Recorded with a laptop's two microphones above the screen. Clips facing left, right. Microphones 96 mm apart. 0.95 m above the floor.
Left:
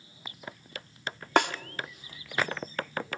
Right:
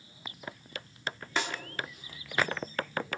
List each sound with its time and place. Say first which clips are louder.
1.4 s a snare drum: left 10 dB; 70° left (ahead or behind), 0.8 m